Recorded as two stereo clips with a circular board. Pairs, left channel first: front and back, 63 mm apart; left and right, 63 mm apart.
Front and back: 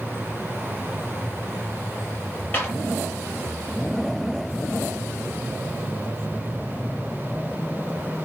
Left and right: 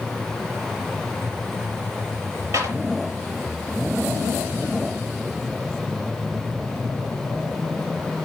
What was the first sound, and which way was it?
A clap, 60° right.